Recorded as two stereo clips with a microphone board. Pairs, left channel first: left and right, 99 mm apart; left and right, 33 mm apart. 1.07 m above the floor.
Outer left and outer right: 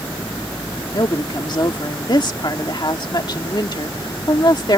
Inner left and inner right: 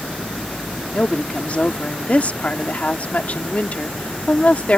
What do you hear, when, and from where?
0.9 s a woman speaking: 50° left (ahead or behind)